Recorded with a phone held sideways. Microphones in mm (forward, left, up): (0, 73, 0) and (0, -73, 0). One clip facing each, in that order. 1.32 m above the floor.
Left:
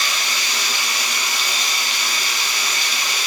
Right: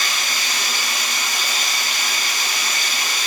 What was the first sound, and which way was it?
Running water, 50° right (ahead or behind).